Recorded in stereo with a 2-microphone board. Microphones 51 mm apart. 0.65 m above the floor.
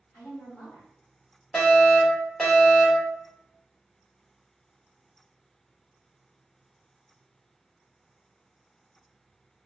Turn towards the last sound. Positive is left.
turn(degrees=10)  # may be behind; listen again after turning